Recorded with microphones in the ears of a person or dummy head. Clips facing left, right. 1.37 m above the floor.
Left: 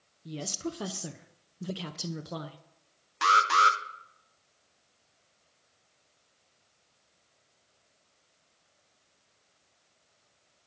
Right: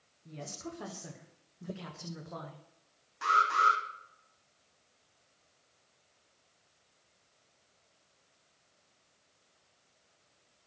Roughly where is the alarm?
Left.